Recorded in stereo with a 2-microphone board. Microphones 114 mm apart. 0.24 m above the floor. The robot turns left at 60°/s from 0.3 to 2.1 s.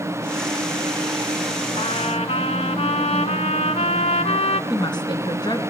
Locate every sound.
1.8 s a trumpet: 60° left (ahead or behind), 1.3 m; by 4.6 s 70° left (ahead or behind), 1.3 m
4.7 s a woman speaking: 40° left (ahead or behind), 2.5 m